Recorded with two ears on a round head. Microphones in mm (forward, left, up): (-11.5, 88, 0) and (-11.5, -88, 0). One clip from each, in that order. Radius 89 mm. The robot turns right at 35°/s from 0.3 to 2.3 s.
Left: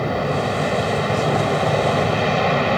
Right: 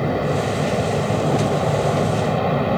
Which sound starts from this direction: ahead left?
An aircraft, at 0.0 s.